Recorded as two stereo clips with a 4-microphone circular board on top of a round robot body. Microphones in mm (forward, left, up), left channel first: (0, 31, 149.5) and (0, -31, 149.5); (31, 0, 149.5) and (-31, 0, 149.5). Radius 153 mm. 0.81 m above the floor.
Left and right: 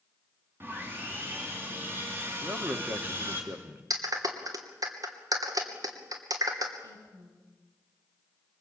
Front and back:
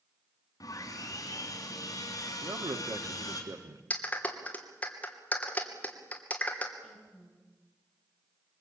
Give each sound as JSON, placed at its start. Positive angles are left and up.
{"t": 0.6, "sound": "sawing", "azimuth_deg": -30, "distance_m": 3.0}
{"t": 2.4, "sound": "a man speaking", "azimuth_deg": -150, "distance_m": 1.7}
{"t": 3.9, "sound": "a clap", "azimuth_deg": -70, "distance_m": 3.0}
{"t": 6.8, "sound": "a woman speaking", "azimuth_deg": -85, "distance_m": 7.0}